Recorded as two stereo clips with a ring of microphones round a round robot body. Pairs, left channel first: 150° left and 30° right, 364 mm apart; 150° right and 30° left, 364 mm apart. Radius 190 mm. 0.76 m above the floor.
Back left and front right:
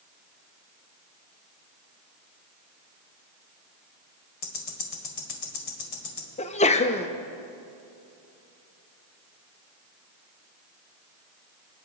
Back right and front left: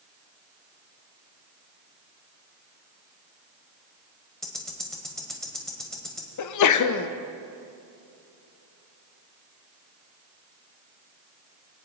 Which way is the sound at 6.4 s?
145° right.